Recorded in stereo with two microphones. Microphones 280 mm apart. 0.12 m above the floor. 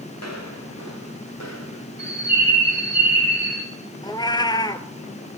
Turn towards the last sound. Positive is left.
turn(degrees=15)  # may be behind; listen again after turning